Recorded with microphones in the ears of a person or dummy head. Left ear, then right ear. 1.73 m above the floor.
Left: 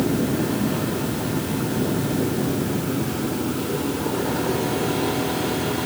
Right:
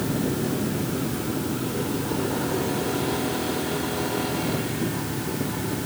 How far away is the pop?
I don't hear a pop.